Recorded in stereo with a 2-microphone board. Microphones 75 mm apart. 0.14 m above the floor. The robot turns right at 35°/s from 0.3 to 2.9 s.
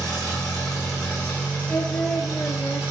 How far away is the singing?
About 0.6 m.